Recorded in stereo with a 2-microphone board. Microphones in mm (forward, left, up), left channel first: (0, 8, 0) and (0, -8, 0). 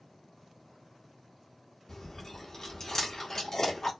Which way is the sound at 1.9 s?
30° left (ahead or behind).